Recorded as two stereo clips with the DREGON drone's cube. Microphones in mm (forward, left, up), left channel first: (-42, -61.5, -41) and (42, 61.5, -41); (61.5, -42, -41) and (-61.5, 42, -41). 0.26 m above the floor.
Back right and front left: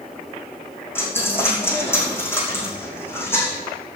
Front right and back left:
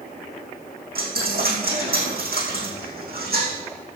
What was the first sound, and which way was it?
A dropped coin, 160° left.